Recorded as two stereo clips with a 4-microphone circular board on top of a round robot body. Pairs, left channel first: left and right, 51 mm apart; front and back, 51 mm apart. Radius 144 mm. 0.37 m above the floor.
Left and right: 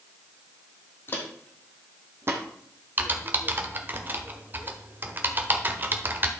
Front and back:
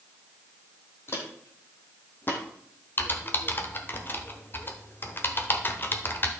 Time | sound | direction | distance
1.1 | footsteps | 45° left | 1.3 m
3.0 | typing on a keyboard | 45° right | 1.3 m